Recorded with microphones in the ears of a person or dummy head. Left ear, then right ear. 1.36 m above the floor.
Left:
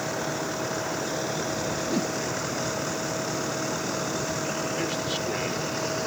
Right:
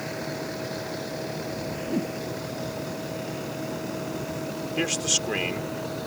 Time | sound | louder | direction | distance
0.0 | a vehicle | left 3 dB | 45° left (ahead or behind) | ?
1.9 | a whoosh | right 1 dB | 50° left (ahead or behind) | ?
4.8 | a man speaking | right 3 dB | 45° right (ahead or behind) | ?